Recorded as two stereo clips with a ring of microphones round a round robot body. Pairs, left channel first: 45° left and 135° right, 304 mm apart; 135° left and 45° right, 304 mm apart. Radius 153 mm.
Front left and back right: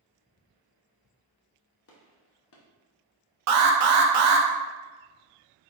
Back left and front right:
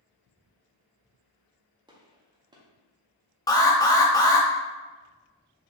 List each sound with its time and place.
1.9 s a gunshot: 25° left, 0.7 m
3.5 s an alarm: 150° right, 0.6 m